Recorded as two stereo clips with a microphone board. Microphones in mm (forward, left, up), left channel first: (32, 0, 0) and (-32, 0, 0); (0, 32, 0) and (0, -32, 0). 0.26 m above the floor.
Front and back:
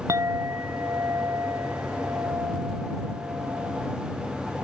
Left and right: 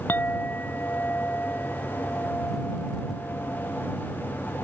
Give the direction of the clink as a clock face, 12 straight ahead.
7 o'clock.